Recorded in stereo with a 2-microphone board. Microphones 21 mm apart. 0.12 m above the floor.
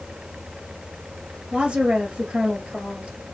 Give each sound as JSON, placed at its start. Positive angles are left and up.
{"t": 1.5, "sound": "a woman speaking", "side_deg": -55, "distance_m": 2.5}